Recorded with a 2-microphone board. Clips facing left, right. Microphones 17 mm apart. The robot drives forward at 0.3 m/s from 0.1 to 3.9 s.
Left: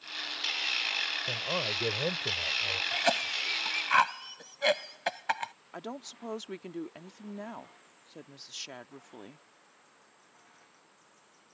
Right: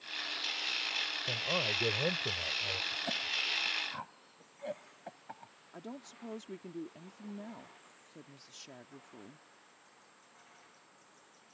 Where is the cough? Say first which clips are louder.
Left 6 dB; 75° left (ahead or behind).